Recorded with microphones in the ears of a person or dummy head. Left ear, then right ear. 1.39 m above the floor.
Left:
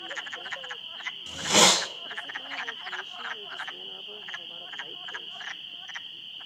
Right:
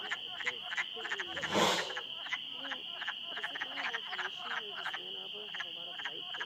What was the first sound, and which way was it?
A hiss, 70° left (ahead or behind).